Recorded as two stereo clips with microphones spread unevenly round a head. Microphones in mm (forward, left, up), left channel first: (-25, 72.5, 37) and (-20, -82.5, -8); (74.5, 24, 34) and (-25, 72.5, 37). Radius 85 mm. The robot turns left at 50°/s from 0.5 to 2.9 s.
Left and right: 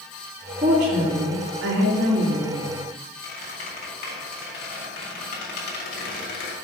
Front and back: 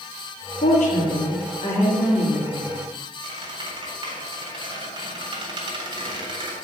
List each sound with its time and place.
0.6 s a woman speaking: 25° right, 2.5 m; by 2.8 s 135° right, 2.5 m
3.2 s a squeak: 110° left, 3.5 m